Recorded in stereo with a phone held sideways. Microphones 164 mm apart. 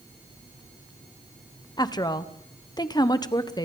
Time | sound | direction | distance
1.8 | a woman speaking | 25° left (ahead or behind) | 1.0 m